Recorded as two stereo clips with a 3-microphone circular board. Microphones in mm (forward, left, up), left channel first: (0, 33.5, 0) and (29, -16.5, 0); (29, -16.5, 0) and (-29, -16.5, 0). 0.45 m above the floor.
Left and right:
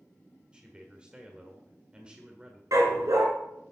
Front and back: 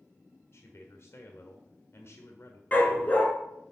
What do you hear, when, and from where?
0.5 s a man speaking: 10° left, 1.3 m
2.7 s a dog barking: 60° right, 2.5 m